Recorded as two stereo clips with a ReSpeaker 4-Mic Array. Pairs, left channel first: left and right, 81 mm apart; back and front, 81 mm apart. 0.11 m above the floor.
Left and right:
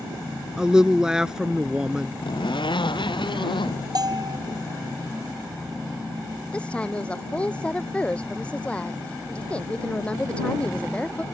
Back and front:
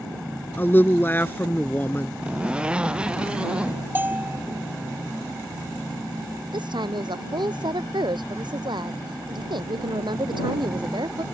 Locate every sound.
0.6 s a woman speaking: 165° right
2.2 s a zipper: 75° left
4.0 s a bell: 65° right
6.5 s a woman speaking: 15° left